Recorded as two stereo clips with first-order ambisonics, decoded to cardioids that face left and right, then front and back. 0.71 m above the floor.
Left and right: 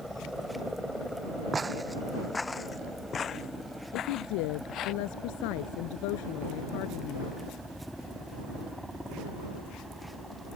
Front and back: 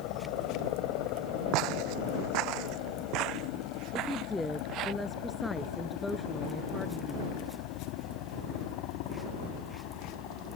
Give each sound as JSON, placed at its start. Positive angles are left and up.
{"t": 0.0, "sound": "a helicopter", "azimuth_deg": 5}
{"t": 1.5, "sound": "footsteps", "azimuth_deg": -165}
{"t": 3.9, "sound": "a woman speaking", "azimuth_deg": 85}